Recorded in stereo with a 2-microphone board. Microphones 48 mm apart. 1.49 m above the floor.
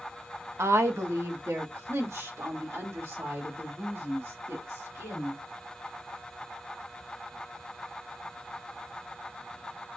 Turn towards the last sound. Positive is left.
turn(degrees=-75)  # may be behind; listen again after turning